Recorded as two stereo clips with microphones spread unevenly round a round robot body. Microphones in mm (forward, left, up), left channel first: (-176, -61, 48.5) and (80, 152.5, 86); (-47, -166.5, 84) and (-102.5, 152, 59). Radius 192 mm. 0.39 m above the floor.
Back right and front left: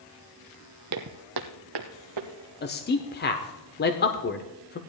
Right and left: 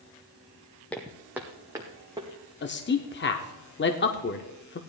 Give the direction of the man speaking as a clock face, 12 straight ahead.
4 o'clock.